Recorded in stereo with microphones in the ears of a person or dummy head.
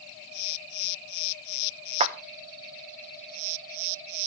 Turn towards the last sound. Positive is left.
turn(degrees=-30)  # may be behind; listen again after turning